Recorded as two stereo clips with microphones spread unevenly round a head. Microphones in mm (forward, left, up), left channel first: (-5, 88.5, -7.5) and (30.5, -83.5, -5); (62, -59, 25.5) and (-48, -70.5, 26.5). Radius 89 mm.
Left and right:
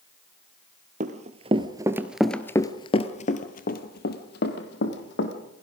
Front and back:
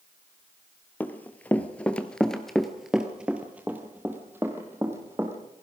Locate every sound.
1.0 s running footsteps: 65° right, 1.7 m; by 5.3 s 110° left, 3 m